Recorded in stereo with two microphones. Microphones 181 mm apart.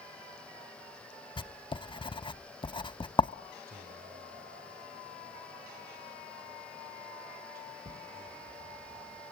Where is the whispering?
55° right (ahead or behind), 1.7 m.